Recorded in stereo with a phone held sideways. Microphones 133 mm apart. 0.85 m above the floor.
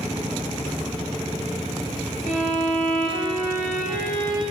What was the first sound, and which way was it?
A violin, 80° left.